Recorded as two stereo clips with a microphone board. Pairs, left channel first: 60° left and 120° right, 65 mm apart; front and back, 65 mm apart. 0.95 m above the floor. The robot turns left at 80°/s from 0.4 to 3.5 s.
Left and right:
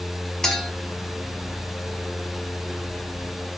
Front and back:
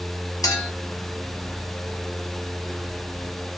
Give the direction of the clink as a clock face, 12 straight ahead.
1 o'clock.